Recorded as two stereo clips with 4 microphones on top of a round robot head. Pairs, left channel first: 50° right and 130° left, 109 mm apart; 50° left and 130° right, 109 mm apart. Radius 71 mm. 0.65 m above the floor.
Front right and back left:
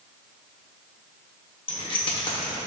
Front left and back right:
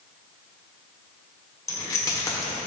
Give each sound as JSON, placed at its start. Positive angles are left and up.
{"t": 1.7, "sound": "keys jangling", "azimuth_deg": -10, "distance_m": 1.4}